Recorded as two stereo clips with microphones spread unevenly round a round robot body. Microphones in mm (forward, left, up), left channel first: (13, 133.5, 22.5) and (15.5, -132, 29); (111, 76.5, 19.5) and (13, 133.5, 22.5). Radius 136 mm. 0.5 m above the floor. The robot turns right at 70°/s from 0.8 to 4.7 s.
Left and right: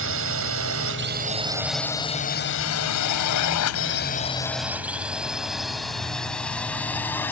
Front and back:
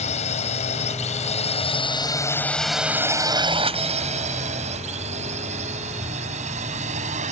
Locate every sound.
0.0 s a drone: 50° right; by 7.3 s 175° left